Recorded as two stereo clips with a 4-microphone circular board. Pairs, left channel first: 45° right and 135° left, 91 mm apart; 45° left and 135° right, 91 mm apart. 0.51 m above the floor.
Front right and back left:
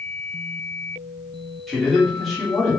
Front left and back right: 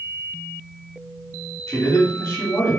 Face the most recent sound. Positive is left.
turn(degrees=40)